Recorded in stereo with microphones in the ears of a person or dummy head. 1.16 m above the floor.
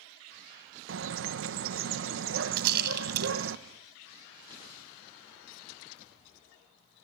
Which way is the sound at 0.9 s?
55° right (ahead or behind).